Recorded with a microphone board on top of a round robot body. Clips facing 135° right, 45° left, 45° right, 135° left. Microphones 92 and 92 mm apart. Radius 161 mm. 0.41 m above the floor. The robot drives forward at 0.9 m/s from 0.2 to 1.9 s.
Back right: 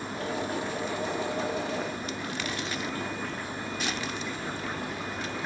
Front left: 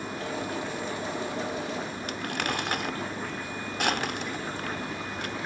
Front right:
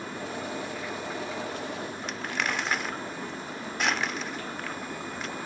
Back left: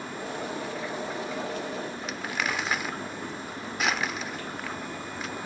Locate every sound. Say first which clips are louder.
2.1 s crumpling: front left 3 dB, even; 45° left